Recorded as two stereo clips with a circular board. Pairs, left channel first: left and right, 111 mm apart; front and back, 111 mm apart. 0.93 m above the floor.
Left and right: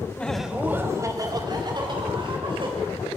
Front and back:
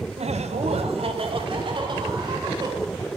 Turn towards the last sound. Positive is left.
turn(degrees=-130)